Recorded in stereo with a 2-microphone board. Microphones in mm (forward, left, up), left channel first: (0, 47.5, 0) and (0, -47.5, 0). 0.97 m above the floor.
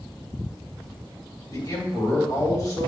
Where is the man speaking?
40° left (ahead or behind), 2.5 m.